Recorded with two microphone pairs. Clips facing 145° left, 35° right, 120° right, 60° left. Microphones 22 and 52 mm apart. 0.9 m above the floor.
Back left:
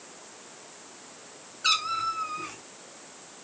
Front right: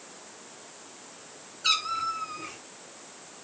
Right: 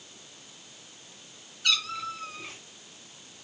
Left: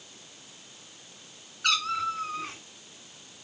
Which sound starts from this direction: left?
A cat meowing, at 1.6 s.